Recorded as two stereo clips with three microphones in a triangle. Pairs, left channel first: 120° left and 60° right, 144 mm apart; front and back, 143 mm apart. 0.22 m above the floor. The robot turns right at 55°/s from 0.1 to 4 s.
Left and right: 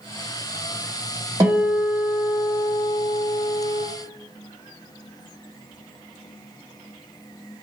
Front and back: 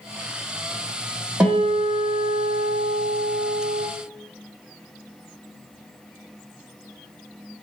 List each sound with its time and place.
1.4 s a guitar: 110° right, 1.2 m; by 3.8 s 25° left, 1.2 m